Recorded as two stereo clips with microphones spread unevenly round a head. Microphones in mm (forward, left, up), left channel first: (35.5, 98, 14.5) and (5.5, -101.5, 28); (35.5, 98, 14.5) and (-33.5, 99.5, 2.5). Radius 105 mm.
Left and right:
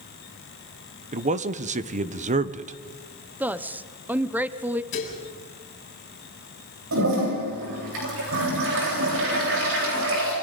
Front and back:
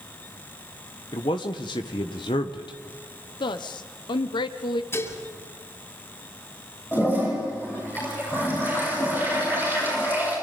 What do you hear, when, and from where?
1.1 s a man speaking: 40° right, 1.0 m
3.4 s a woman speaking: 15° right, 0.7 m
4.9 s dishes clattering: 45° left, 6.5 m
6.9 s a toilet flushing: 80° right, 9.5 m